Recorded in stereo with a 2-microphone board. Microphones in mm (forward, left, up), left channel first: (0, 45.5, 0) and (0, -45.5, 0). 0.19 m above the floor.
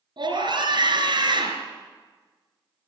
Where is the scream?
60° right (ahead or behind), 2.5 m.